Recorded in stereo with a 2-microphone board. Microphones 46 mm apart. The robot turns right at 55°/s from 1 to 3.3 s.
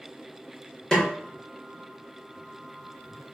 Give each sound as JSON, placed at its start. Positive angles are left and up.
{"t": 0.9, "sound": "a snare drum", "side_deg": 20, "distance_m": 1.2}